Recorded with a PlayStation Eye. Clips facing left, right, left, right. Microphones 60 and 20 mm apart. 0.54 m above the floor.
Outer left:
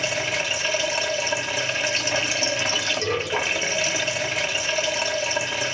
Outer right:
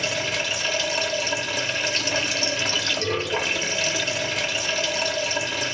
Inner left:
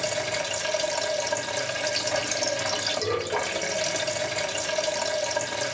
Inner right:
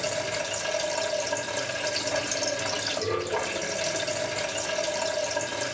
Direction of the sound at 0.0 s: 20° left (ahead or behind).